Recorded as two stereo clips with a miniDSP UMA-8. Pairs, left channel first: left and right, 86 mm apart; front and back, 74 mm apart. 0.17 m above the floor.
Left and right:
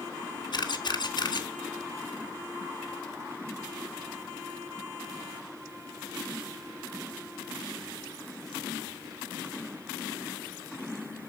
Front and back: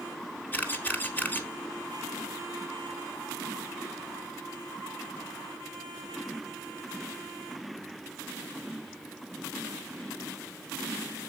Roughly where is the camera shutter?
Ahead left.